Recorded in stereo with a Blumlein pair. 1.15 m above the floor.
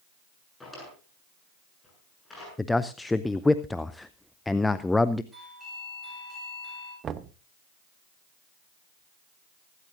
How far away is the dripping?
I don't hear dripping.